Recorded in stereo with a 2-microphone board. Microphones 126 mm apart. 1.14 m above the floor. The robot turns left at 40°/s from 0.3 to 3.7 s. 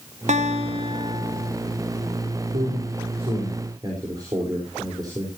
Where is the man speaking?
75° right (ahead or behind), 4 m; by 5.4 s 30° right (ahead or behind), 4 m.